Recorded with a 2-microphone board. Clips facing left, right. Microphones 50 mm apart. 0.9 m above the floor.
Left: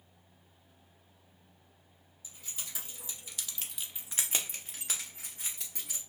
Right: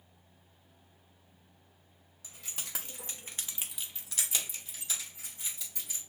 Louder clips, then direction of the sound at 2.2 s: Right 2 dB; 70° right (ahead or behind).